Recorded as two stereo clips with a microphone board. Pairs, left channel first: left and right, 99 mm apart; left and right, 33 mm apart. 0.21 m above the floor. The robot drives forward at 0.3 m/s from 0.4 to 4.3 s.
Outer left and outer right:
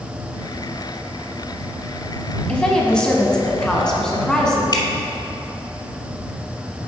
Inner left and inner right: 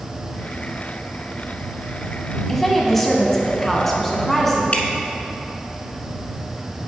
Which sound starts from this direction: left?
Dripping, at 4.7 s.